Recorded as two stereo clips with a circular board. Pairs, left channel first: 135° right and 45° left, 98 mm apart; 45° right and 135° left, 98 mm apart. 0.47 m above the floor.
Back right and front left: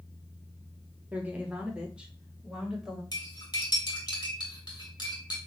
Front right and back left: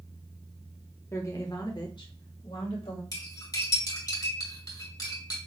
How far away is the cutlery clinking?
About 2.0 m.